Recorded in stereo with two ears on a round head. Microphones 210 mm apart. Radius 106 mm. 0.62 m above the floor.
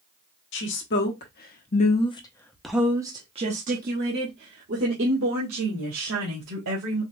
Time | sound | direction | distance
0.5 | a woman speaking | 55° left (ahead or behind) | 1.3 m